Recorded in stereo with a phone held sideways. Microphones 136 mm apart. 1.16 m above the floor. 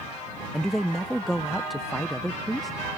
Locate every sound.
0.5 s a man speaking: centre (ahead or behind)